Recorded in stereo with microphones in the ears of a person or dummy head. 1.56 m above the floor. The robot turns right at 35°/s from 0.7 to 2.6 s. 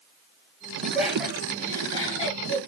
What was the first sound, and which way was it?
Laughter, 15° right (ahead or behind).